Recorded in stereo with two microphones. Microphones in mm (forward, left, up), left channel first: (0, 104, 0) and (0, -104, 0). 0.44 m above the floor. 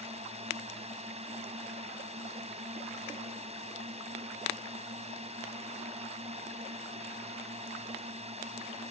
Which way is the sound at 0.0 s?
30° right (ahead or behind).